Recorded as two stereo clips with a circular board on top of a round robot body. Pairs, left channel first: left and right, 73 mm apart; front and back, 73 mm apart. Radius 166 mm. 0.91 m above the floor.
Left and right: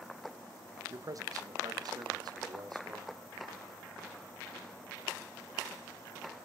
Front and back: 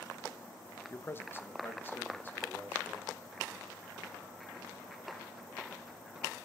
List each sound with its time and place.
0.9 s a man speaking: 55° right, 1.3 m; by 3.1 s 65° right, 4 m